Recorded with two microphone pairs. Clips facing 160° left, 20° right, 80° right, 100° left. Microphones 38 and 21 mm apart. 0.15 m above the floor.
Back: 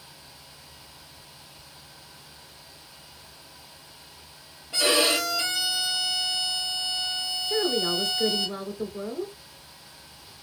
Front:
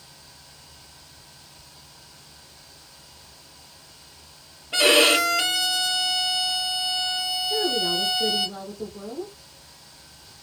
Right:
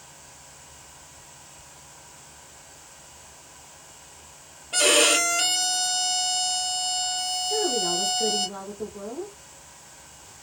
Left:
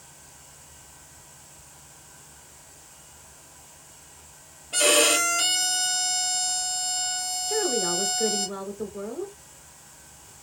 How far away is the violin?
About 0.5 m.